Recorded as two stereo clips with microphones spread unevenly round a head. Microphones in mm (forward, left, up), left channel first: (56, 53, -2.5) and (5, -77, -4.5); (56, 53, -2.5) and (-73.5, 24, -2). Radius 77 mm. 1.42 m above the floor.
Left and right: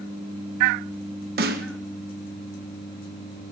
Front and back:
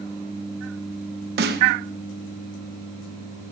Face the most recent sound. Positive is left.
turn(degrees=-145)